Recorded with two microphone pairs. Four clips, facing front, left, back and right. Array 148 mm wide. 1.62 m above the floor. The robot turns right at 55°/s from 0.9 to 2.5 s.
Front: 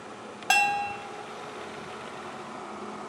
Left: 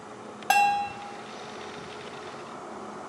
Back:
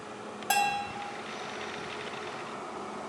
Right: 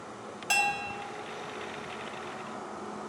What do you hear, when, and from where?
0.5 s a bell: 65° left, 0.6 m